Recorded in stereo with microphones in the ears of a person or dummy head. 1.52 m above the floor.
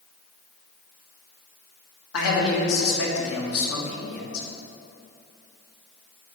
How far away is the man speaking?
About 1.6 m.